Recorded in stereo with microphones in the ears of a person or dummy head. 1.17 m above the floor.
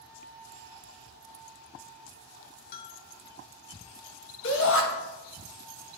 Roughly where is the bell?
Left.